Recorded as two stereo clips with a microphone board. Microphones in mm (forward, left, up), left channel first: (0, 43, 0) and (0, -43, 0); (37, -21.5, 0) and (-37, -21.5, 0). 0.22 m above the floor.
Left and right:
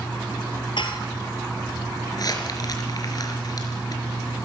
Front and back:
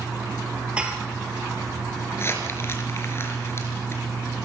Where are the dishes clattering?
105° left, 3 m.